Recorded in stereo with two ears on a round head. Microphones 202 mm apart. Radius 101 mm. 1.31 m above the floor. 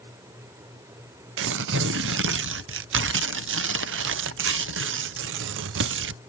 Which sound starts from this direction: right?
Tearing paper, at 1.4 s.